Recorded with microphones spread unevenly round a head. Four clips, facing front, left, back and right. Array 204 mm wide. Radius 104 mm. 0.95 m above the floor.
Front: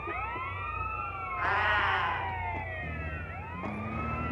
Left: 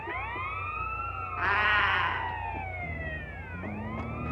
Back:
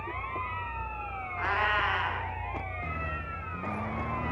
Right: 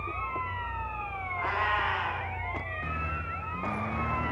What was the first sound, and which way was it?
A cat meowing, 105° left.